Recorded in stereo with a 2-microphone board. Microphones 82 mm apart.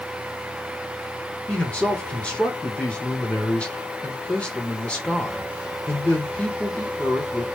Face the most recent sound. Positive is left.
turn(degrees=15)  # may be behind; listen again after turning